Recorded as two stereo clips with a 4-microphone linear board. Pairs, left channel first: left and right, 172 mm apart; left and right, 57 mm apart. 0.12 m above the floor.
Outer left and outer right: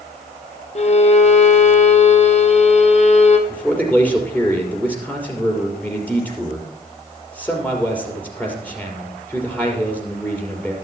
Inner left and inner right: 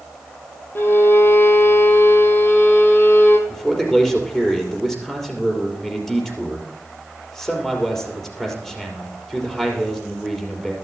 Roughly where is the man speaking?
Centre.